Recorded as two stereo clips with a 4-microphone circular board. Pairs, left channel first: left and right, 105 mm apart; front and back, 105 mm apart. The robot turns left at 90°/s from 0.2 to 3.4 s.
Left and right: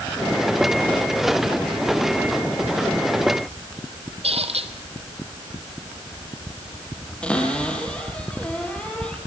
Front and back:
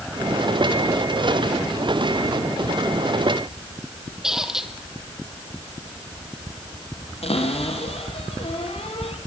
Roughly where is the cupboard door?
Ahead.